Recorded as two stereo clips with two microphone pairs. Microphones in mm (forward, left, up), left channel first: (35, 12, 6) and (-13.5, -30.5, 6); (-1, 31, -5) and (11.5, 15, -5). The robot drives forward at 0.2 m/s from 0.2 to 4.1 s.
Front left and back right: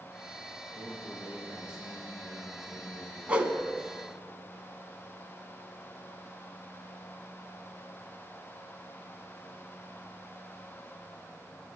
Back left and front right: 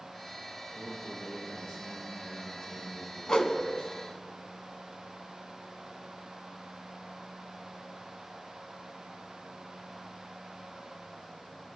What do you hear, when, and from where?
0.8 s a man speaking: 145° left, 4 m; by 4.0 s 150° left, 4.5 m
3.3 s a whoosh: 155° left, 0.8 m